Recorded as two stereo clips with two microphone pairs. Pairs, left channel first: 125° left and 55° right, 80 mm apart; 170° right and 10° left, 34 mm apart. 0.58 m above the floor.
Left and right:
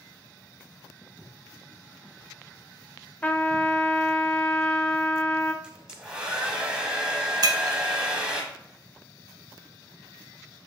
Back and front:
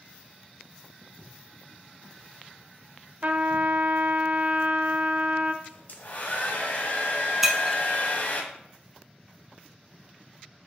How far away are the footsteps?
About 2.5 m.